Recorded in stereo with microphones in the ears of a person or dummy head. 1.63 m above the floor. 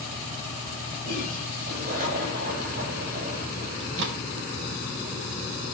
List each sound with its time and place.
1.0 s a toilet flushing: 45° right (ahead or behind), 6 m
3.8 s a microwave: 70° right (ahead or behind), 2.0 m